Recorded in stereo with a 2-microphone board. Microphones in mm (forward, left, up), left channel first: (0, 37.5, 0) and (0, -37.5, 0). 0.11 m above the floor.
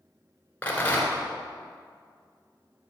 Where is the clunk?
I don't hear a clunk.